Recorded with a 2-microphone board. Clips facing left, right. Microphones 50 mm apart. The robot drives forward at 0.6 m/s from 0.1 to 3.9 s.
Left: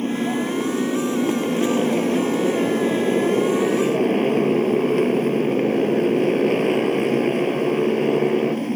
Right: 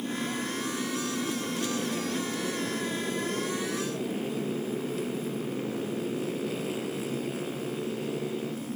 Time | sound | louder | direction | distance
0.0 | a motorcycle | left 10 dB | 55° left (ahead or behind) | ?